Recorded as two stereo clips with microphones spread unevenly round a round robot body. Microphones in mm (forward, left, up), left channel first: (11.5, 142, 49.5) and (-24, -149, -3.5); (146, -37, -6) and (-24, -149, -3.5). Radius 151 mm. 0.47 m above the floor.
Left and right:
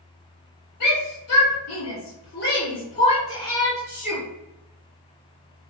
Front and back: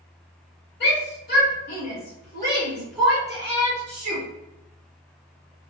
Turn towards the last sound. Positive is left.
turn(degrees=-160)